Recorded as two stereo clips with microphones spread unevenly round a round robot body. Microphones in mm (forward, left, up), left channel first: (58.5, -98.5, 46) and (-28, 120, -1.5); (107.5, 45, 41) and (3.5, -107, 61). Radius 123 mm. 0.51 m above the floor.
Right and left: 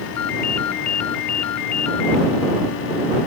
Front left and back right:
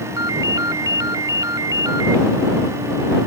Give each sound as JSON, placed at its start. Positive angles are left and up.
{"t": 0.2, "sound": "a ringtone", "azimuth_deg": -55}